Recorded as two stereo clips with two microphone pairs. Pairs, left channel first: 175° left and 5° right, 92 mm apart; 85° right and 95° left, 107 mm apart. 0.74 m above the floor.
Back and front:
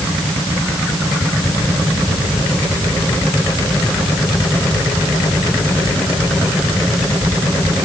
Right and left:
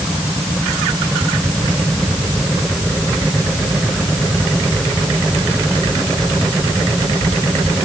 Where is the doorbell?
I don't hear a doorbell.